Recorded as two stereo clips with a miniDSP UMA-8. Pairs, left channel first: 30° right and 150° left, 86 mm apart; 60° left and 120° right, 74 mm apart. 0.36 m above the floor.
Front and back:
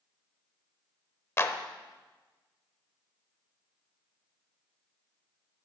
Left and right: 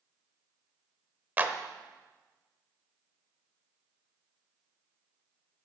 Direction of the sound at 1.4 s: 70° right.